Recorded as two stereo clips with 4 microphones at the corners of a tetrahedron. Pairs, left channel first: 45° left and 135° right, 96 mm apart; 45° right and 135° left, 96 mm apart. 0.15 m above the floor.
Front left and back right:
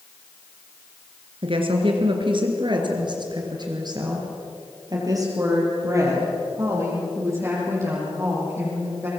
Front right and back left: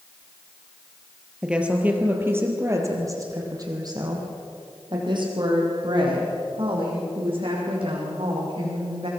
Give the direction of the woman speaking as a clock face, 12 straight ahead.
5 o'clock.